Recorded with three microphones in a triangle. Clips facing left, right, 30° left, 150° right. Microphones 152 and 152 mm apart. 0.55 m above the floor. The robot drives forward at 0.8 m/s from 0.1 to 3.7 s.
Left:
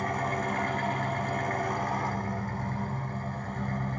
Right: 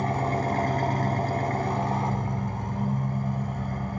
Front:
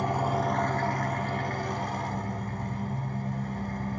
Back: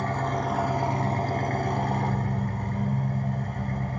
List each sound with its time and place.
0.0 s an engine running: 40° right, 1.1 m; by 4.0 s 165° right, 2.5 m